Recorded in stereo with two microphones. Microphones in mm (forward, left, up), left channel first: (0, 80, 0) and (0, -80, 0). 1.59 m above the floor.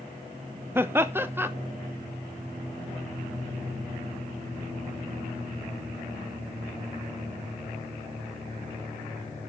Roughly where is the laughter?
Centre.